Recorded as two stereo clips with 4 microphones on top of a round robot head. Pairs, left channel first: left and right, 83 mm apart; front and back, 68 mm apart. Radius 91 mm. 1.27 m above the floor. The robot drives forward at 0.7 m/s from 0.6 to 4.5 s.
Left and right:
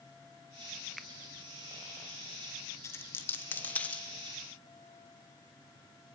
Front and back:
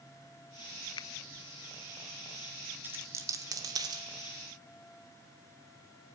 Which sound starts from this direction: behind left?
A dropped coin, at 2.8 s.